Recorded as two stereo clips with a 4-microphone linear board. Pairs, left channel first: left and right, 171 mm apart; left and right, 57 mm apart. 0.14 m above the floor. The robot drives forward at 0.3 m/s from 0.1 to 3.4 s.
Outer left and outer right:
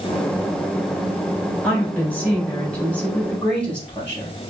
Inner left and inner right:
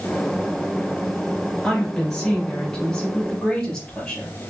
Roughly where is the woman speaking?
Centre.